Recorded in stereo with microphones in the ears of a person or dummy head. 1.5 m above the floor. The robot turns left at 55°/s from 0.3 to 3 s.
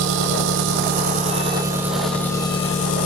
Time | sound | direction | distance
0.0 | an engine running | 85° right | 0.9 m